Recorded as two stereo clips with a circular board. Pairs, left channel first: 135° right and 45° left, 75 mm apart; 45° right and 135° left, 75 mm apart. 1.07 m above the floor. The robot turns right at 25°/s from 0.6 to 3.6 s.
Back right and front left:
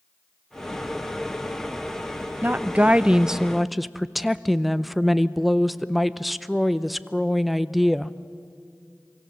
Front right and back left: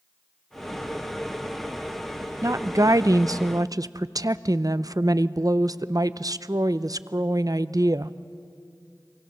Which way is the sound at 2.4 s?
105° left.